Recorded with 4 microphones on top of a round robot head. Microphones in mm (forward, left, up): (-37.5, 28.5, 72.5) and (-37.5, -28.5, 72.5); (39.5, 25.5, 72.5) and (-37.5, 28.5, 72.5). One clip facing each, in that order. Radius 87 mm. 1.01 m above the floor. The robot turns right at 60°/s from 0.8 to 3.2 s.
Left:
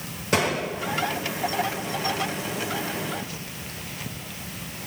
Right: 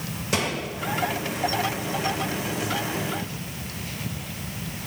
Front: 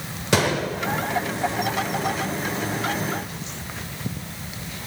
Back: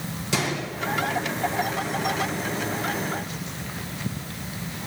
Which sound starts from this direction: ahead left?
A gunshot, at 0.3 s.